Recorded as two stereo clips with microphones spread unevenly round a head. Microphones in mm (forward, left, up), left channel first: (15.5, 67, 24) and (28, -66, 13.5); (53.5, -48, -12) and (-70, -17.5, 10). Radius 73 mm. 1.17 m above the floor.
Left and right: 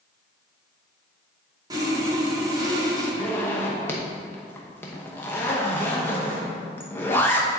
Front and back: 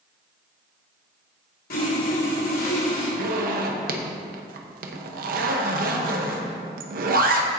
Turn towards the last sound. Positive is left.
turn(degrees=170)